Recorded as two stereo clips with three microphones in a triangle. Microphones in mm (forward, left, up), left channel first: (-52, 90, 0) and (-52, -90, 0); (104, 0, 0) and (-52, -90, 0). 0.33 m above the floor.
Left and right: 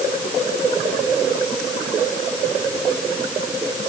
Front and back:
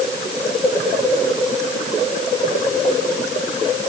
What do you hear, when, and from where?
Only background noise.